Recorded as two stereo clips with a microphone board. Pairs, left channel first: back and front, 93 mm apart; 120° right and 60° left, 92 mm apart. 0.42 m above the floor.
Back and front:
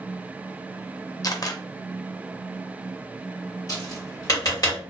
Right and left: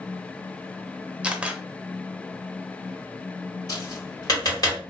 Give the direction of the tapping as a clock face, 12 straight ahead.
5 o'clock.